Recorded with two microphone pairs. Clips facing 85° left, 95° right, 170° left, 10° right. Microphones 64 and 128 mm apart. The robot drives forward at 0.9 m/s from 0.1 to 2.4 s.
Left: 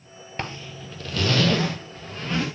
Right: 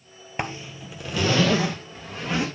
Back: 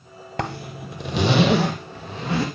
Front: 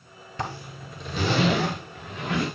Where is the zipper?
170° right, 0.8 m; by 2.5 s 175° right, 2.5 m.